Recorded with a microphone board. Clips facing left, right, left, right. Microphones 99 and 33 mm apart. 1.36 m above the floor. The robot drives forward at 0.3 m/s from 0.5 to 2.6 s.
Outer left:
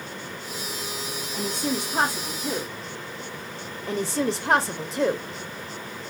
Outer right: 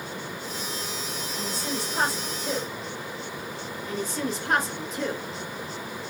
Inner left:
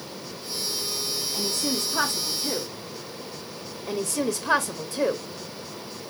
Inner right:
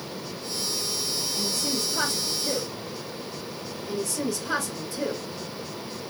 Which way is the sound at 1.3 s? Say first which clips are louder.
Outer left 5 dB, inner left 2 dB; 60° left (ahead or behind).